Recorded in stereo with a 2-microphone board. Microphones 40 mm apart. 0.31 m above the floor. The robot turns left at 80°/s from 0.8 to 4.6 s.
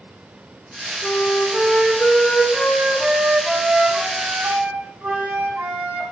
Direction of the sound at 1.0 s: 150° left.